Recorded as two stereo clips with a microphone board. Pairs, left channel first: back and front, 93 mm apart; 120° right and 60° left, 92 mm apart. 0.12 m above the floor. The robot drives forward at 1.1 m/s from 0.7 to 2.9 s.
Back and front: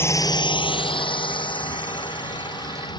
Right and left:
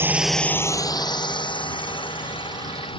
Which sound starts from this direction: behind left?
A drone, at 0.0 s.